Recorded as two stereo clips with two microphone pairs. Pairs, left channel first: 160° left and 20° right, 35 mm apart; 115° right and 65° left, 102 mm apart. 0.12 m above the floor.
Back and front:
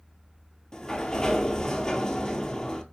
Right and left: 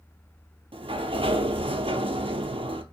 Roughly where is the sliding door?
Left.